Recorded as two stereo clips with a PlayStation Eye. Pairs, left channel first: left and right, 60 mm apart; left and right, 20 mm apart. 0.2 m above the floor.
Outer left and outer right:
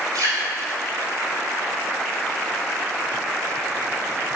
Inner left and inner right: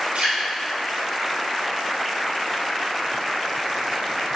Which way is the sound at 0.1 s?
70° right (ahead or behind).